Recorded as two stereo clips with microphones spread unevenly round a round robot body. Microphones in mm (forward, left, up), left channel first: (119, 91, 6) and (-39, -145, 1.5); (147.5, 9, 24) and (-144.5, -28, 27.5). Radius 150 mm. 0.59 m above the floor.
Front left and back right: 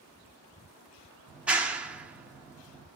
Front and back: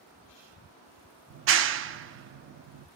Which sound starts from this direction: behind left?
A clap, at 1.3 s.